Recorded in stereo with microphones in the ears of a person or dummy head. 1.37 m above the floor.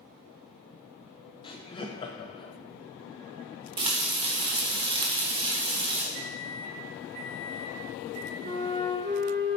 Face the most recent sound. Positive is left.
turn(degrees=-50)  # may be behind; listen again after turning